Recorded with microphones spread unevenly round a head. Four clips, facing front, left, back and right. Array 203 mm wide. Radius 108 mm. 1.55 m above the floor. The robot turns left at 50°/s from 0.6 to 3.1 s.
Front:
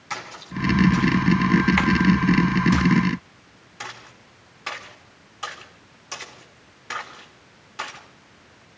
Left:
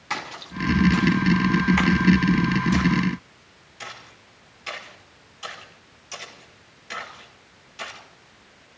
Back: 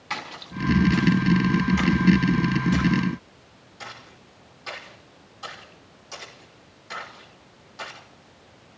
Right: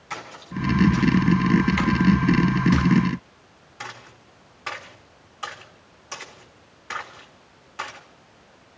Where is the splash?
90° left, 4 m; by 8.0 s 35° right, 4 m.